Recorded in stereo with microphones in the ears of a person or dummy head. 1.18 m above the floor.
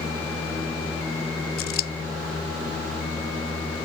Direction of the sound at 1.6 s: 55° left (ahead or behind).